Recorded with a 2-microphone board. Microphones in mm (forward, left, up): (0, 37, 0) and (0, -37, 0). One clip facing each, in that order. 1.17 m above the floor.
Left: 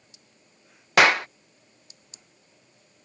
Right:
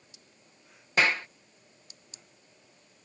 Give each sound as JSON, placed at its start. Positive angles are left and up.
{"t": 1.0, "sound": "a clap", "side_deg": 80}